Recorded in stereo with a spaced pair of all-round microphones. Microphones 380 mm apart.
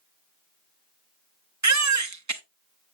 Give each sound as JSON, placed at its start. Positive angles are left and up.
{"t": 1.6, "sound": "a baby crying", "side_deg": -45, "distance_m": 0.7}